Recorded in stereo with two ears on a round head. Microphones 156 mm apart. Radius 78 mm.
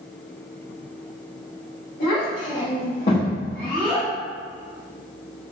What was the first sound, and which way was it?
A child speaking, 60° left (ahead or behind).